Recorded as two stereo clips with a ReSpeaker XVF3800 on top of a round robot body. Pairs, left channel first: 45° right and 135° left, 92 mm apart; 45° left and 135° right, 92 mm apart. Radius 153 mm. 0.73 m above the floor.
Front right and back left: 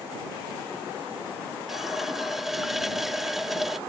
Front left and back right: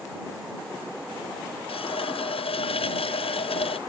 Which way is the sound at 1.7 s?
50° left.